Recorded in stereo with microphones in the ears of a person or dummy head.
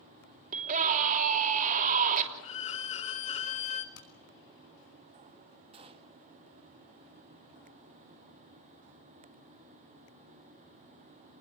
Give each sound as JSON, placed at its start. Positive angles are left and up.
{"t": 0.5, "sound": "a scream", "side_deg": -45, "distance_m": 3.0}
{"t": 2.4, "sound": "a violin", "side_deg": 35, "distance_m": 1.1}
{"t": 4.0, "sound": "hammering", "side_deg": 75, "distance_m": 5.0}
{"t": 5.7, "sound": "a gunshot", "side_deg": -30, "distance_m": 1.5}